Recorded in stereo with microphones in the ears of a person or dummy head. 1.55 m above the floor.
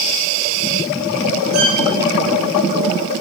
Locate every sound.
1.5 s a violin: 50° right (ahead or behind), 7 m